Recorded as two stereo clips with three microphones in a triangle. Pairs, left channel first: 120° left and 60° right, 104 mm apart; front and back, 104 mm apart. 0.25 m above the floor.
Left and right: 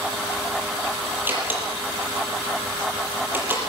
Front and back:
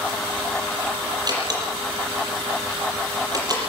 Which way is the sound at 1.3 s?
130° right.